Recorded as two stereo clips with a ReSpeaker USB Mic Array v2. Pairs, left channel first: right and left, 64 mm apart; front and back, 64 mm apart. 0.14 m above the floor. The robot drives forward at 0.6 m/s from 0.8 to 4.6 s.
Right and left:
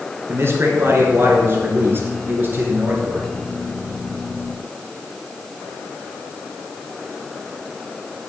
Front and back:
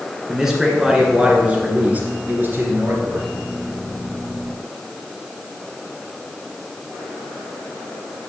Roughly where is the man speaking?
Left.